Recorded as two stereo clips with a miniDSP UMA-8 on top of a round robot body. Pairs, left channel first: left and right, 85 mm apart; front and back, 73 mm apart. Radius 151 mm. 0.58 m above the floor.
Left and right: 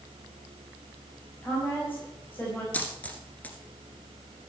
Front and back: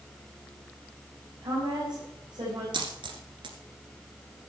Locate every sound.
1.4 s a woman speaking: 155° left, 4.5 m
2.7 s a dropped coin: 165° left, 1.4 m